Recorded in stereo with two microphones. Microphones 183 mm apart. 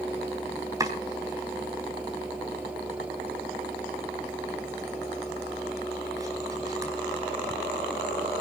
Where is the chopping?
20° right (ahead or behind), 4 m.